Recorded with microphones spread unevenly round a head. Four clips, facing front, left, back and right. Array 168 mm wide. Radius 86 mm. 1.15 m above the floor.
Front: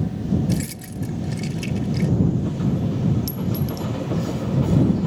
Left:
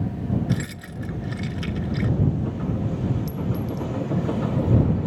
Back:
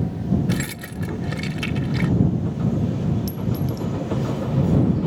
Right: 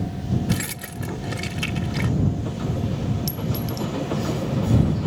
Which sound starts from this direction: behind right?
Keys jangling, at 0.5 s.